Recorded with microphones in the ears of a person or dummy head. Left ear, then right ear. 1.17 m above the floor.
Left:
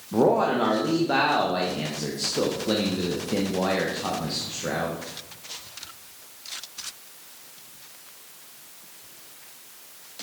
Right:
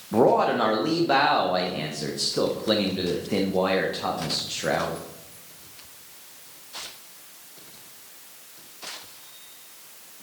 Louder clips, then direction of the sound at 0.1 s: Right 1 dB; 20° right (ahead or behind).